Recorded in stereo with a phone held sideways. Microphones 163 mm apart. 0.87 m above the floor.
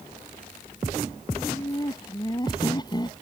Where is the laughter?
25° left (ahead or behind).